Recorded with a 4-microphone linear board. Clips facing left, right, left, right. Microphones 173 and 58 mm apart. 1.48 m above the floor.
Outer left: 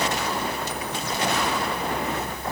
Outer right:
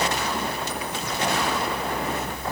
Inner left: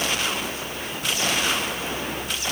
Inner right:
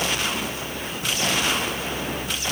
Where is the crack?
No crack in this recording.